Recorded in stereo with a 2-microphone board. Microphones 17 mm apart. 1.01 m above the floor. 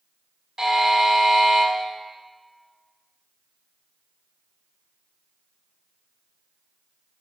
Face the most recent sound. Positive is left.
turn(degrees=-40)  # may be behind; listen again after turning